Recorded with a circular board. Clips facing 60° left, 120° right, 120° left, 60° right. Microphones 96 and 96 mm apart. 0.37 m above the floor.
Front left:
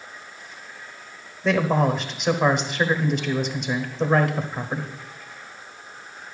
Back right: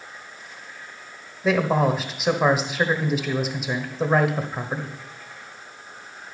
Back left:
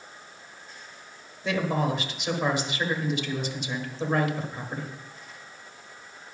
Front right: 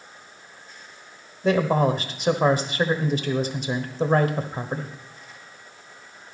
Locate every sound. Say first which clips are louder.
1.4 s a man speaking: even, front right 6 dB; 35° right, 1.2 m